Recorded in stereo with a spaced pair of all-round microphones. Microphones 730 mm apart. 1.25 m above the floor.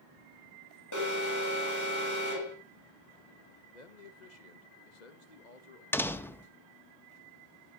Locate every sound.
0.9 s an alarm: 25° left (ahead or behind), 6 m
3.7 s a man speaking: 70° left (ahead or behind), 1.4 m
5.9 s a door slam: 5° left (ahead or behind), 0.8 m